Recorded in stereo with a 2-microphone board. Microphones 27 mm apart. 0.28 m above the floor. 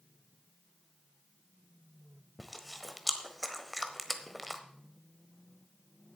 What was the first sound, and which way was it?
Chewing, centre (ahead or behind).